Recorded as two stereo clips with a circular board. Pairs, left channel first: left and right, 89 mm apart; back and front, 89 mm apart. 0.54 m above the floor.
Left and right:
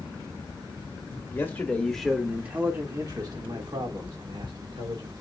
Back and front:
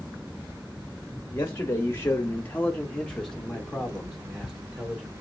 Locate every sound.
1.3 s a man speaking: 135° left, 0.8 m; by 5.1 s 85° right, 1.7 m